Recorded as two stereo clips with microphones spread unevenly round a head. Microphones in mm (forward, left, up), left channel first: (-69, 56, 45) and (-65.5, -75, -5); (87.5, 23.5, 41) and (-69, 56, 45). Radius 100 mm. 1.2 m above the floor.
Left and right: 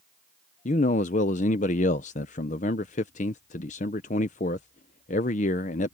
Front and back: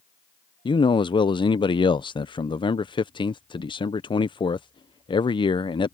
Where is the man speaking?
40° left.